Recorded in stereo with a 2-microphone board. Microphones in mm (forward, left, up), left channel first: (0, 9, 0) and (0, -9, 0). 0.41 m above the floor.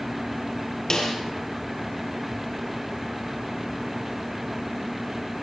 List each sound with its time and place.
0.9 s a snare drum: 30° left (ahead or behind), 4.5 m